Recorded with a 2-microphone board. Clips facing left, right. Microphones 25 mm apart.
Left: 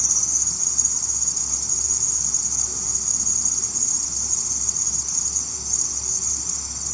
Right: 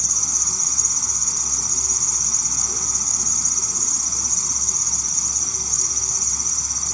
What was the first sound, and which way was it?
An insect, 60° right (ahead or behind).